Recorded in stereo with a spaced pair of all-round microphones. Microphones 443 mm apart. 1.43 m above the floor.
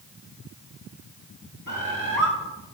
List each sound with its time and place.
1.7 s a bird: 45° right (ahead or behind), 1.8 m